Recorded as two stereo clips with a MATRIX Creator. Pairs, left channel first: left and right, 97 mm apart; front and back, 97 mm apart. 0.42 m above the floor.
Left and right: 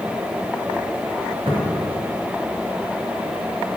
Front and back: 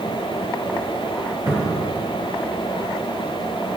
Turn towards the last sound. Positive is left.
turn(degrees=-120)